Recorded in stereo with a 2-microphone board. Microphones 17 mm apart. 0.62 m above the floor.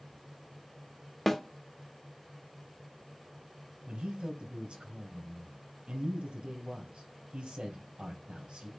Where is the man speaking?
65° right (ahead or behind), 4 m.